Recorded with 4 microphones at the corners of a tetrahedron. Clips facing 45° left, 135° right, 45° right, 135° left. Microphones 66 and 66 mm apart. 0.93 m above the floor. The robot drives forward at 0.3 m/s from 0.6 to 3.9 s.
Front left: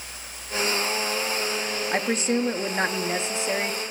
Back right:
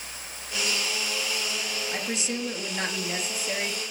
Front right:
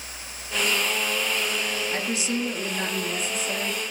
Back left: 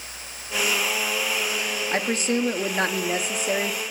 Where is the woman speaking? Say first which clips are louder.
Front left 9 dB, back left 7 dB; 90° left, 1.1 m; by 3.8 s 115° left, 1.2 m.